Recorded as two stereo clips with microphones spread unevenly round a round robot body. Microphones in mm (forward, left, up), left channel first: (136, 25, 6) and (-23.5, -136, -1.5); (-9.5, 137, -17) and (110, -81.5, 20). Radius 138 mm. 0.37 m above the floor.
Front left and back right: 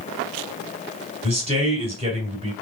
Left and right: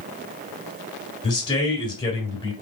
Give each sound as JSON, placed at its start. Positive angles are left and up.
{"t": 1.2, "sound": "a man speaking", "azimuth_deg": 175, "distance_m": 1.6}